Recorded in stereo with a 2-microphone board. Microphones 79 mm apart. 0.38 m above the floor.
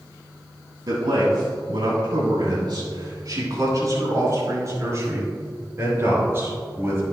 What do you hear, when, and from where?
0.9 s a man speaking: 70° right (ahead or behind), 2.5 m; by 7.1 s 30° right (ahead or behind), 5.5 m